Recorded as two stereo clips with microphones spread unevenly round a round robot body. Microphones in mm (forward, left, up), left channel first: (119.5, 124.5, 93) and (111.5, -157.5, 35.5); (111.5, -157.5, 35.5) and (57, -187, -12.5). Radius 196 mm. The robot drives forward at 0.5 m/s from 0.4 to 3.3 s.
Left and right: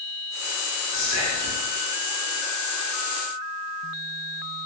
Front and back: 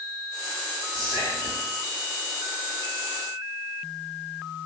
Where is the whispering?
105° left, 1.0 m; by 1.6 s 125° left, 1.1 m.